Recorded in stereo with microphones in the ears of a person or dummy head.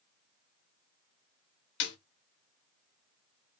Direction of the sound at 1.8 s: 55° left (ahead or behind).